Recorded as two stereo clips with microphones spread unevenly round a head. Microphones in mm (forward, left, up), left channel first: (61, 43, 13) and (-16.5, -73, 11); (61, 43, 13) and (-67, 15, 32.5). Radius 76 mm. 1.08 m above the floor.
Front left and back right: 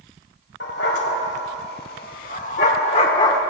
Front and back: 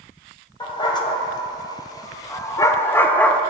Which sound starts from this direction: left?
A dog barking, at 0.6 s.